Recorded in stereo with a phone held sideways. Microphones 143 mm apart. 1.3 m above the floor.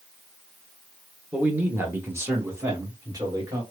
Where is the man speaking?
10° right (ahead or behind), 1.1 m; by 3.6 s 25° right (ahead or behind), 2.5 m.